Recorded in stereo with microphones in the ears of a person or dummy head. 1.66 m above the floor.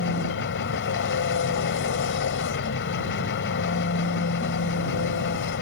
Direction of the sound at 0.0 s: 55° left (ahead or behind).